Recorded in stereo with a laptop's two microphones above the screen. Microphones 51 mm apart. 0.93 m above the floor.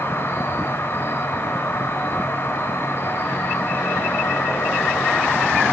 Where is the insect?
50° left (ahead or behind), 0.9 m.